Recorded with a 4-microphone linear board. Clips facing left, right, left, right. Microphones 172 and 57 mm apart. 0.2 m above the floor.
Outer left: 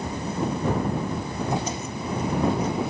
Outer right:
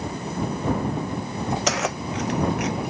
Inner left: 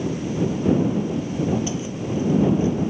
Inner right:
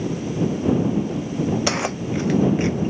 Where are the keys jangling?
80° right; by 2.9 s 75° right (ahead or behind).